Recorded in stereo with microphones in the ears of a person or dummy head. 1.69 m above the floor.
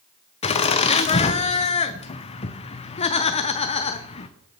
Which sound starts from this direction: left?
Laughter, at 0.4 s.